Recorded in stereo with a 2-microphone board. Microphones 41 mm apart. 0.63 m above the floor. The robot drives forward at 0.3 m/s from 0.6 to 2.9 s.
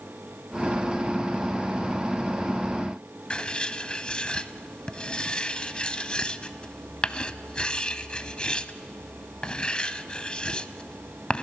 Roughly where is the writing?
Left.